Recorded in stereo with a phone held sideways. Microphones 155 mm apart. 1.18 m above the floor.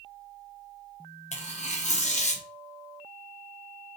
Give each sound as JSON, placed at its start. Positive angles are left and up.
{"t": 1.3, "sound": "tearing paper", "side_deg": 50, "distance_m": 0.5}